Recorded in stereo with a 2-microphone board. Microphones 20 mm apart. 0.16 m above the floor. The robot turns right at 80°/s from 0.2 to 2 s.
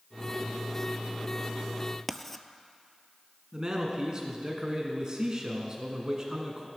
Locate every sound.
2.1 s writing: 10° left (ahead or behind), 0.5 m
3.5 s a man speaking: 35° right (ahead or behind), 2.0 m